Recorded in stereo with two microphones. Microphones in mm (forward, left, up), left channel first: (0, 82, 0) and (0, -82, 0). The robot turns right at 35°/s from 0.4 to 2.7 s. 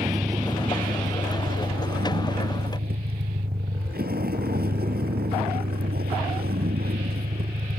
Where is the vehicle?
155° right; by 7.8 s 75° right.